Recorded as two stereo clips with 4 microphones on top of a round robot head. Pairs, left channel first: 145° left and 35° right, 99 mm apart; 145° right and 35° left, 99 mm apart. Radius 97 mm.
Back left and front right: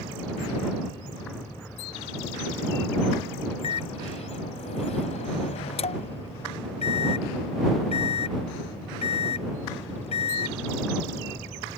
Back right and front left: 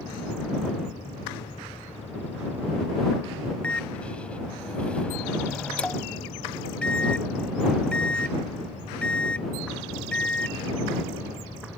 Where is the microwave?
135° left.